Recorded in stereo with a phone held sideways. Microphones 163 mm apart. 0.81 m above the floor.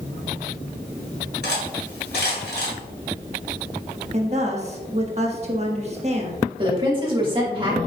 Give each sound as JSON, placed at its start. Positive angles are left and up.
{"t": 1.4, "sound": "cutlery clinking", "side_deg": 70, "distance_m": 1.9}
{"t": 4.1, "sound": "a woman speaking", "side_deg": -40, "distance_m": 1.3}
{"t": 6.6, "sound": "a woman speaking", "side_deg": -30, "distance_m": 1.8}